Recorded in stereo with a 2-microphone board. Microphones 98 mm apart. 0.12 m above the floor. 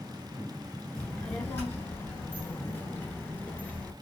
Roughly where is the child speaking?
Centre.